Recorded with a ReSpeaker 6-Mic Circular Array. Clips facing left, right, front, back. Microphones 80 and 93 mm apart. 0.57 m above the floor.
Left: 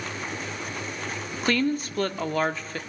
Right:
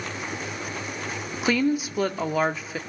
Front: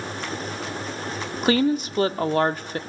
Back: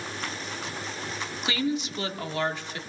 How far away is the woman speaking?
About 0.8 m.